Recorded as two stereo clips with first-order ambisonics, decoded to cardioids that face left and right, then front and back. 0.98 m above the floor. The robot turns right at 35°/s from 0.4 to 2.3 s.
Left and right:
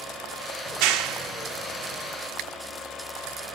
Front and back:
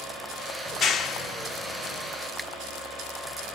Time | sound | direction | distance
0.7 | a clap | 65° right | 0.9 m